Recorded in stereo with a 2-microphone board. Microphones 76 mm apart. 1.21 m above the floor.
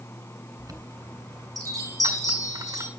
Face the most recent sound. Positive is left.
turn(degrees=-55)  # may be behind; listen again after turning